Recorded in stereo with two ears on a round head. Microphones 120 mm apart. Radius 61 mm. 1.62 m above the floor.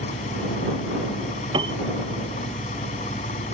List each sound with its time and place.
0.0 s an engine running: 55° left (ahead or behind)
1.5 s a piano: 40° right (ahead or behind)